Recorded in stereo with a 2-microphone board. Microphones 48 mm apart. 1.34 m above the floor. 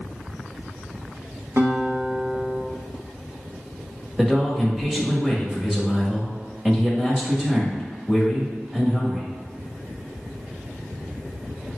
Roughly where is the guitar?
Right.